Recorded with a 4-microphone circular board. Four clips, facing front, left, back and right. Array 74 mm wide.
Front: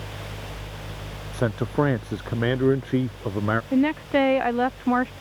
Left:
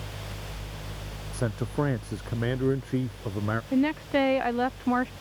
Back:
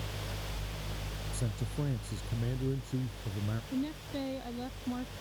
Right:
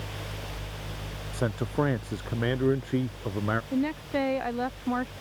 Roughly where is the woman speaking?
Ahead.